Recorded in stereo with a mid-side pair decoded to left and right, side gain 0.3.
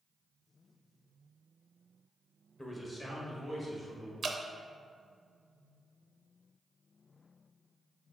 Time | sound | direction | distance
2.6 | a man speaking | 30° left | 1.4 m
4.2 | dripping | 55° right | 0.6 m